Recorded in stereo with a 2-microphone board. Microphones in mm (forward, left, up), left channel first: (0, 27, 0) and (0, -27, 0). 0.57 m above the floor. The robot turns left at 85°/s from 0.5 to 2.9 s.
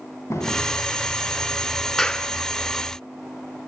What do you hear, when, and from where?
0.3 s a drawer: 60° left (ahead or behind), 2.5 m; by 0.6 s 55° left (ahead or behind), 2.5 m
2.0 s a clap: 5° left (ahead or behind), 1.5 m; by 2.3 s 25° left (ahead or behind), 1.5 m